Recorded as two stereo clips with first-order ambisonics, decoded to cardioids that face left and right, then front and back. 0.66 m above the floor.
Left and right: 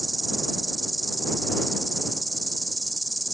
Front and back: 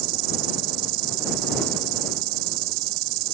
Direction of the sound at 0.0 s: 175° right.